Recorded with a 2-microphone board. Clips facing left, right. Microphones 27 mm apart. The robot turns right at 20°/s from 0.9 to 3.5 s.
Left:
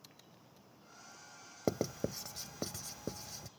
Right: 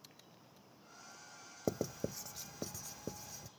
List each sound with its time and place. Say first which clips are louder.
1.7 s writing: left 3 dB; 55° left (ahead or behind); by 3.5 s 85° left